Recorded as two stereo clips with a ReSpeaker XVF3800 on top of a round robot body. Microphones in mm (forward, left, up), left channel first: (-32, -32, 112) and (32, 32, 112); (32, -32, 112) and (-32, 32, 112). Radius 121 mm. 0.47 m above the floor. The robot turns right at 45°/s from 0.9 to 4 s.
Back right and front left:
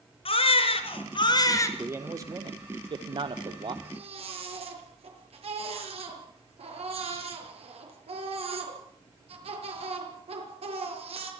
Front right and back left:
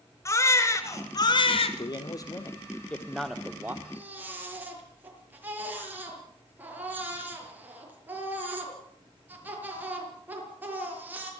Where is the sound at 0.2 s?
105° right, 3 m; by 1.7 s 70° right, 3 m.